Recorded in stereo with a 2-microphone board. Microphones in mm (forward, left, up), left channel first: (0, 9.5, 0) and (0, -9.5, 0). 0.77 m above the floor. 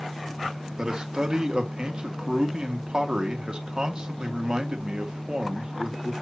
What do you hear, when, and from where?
0.8 s a man speaking: 45° right (ahead or behind), 1.5 m